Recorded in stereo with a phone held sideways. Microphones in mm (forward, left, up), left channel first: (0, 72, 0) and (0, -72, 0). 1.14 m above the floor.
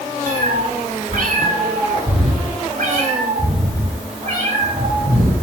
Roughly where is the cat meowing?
Right.